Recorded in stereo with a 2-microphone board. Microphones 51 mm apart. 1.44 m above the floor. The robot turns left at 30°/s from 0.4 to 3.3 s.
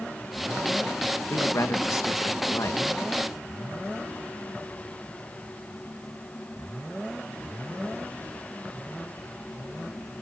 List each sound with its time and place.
1.3 s a man speaking: 120° left, 1.9 m; by 2.8 s 75° left, 1.9 m